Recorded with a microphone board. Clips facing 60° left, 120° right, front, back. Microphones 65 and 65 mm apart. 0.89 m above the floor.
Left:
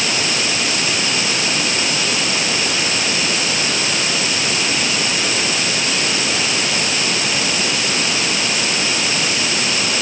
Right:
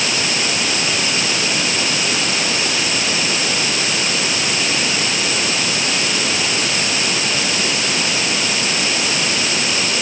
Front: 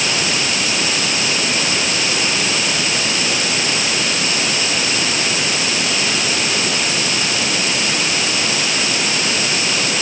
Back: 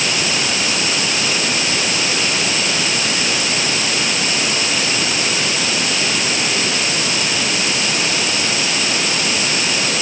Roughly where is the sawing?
I don't hear sawing.